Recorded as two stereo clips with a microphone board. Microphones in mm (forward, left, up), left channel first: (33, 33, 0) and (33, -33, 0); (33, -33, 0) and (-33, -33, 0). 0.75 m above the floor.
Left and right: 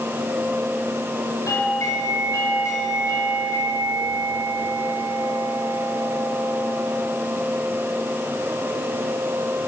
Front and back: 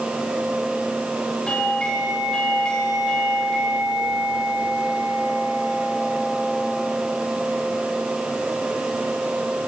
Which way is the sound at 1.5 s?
75° left.